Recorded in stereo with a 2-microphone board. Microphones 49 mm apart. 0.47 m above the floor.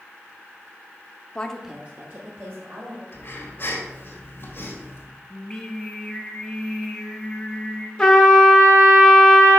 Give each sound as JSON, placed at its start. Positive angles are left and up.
{"t": 1.4, "sound": "a woman speaking", "side_deg": 25, "distance_m": 0.7}
{"t": 3.1, "sound": "breathing", "side_deg": 45, "distance_m": 1.9}
{"t": 5.3, "sound": "singing", "side_deg": 10, "distance_m": 1.2}
{"t": 8.0, "sound": "a trumpet", "side_deg": 10, "distance_m": 1.4}